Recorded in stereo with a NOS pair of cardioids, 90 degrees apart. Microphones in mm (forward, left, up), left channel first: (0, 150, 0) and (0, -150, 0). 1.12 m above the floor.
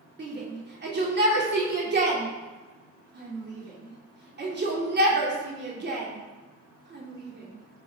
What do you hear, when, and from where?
0.2 s a shout: 35° right, 3 m